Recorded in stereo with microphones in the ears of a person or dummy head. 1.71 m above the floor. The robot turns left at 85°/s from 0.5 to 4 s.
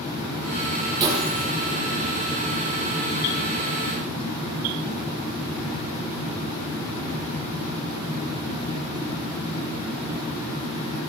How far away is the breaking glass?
About 9.5 m.